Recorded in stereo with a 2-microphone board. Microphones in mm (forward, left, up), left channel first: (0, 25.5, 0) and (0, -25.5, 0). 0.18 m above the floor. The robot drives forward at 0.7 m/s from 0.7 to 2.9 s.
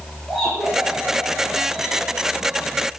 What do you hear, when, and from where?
0.3 s laughter: centre (ahead or behind), 6.5 m